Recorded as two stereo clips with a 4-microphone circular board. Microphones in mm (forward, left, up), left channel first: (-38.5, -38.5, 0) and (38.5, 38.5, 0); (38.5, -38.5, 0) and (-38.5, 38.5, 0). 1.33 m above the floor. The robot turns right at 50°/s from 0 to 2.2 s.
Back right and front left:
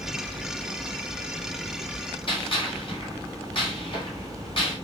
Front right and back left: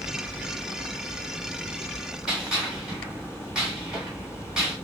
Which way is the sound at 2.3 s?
140° right.